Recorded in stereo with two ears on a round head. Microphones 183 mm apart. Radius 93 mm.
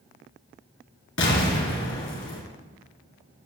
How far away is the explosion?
About 3 m.